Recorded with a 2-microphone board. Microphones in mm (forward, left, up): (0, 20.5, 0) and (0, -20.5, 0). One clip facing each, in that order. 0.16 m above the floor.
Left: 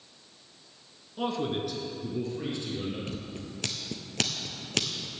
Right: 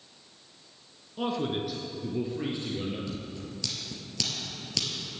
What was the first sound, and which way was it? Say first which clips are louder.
A man speaking: even; centre (ahead or behind).